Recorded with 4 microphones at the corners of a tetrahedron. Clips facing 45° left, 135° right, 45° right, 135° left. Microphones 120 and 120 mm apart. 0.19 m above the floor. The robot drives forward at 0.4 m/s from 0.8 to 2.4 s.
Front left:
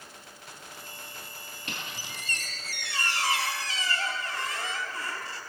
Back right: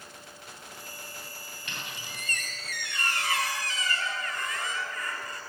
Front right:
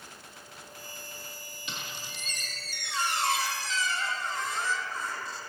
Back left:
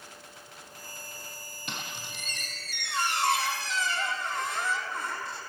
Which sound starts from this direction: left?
A squeak, at 1.7 s.